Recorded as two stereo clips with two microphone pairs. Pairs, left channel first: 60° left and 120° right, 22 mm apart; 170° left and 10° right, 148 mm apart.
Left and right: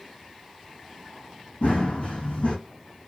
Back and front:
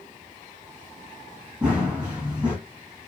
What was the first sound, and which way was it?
Running footsteps, 75° left.